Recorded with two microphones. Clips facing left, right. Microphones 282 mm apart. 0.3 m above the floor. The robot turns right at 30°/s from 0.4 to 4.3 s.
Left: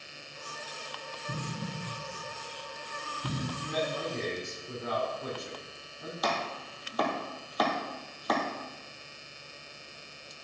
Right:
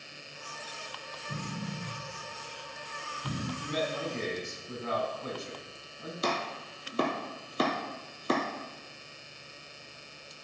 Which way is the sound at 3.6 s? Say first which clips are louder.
Even; 55° left (ahead or behind).